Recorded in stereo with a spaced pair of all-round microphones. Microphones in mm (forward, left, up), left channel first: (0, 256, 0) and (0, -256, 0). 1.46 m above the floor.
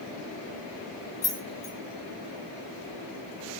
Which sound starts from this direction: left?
Keys jangling, at 1.2 s.